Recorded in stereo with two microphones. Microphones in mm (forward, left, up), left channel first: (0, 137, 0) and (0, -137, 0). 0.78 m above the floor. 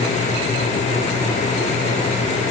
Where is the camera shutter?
I don't hear a camera shutter.